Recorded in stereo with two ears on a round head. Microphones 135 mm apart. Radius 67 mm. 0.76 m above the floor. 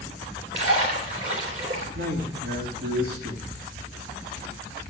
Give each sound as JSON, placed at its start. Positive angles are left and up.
{"t": 0.5, "sound": "a splash", "side_deg": -45, "distance_m": 2.5}
{"t": 1.9, "sound": "a man speaking", "side_deg": -60, "distance_m": 1.9}